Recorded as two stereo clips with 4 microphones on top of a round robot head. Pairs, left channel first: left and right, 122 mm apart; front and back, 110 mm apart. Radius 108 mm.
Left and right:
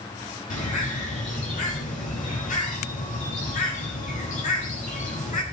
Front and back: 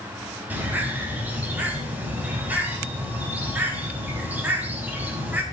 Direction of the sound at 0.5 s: 105° left.